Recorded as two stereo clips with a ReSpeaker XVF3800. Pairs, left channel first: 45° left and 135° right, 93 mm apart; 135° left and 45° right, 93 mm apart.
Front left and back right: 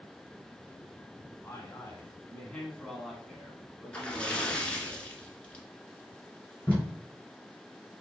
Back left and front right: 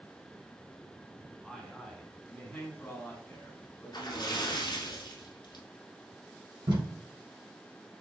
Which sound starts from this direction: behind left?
A splash, at 3.9 s.